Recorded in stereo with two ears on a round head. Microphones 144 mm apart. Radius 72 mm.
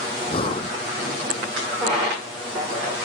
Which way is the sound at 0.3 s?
35° left (ahead or behind).